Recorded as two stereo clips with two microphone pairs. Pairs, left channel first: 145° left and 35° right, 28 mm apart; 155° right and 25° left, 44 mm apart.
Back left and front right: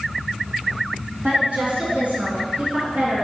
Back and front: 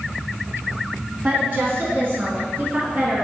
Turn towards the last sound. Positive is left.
turn(degrees=-15)